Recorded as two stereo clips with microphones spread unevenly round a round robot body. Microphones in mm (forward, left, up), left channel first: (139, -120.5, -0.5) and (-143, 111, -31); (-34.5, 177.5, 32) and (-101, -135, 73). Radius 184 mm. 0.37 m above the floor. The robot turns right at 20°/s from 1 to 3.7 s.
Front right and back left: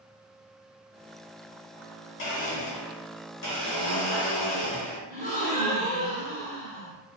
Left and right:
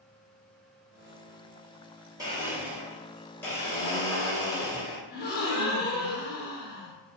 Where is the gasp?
30° left, 1.0 m.